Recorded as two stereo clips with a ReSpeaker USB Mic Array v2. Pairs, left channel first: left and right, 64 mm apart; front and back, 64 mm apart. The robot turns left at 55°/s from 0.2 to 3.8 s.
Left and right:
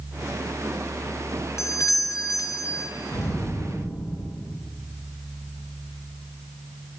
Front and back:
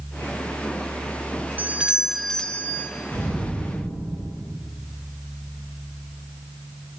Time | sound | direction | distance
1.6 | a doorbell | 125° left | 0.6 m
3.1 | an explosion | 70° left | 6 m